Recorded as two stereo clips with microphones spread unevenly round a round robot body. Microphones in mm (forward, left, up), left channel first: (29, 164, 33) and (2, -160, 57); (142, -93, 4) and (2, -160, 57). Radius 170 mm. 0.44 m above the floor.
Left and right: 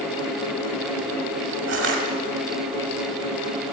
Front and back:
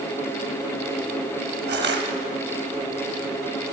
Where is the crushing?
150° right, 1.6 m.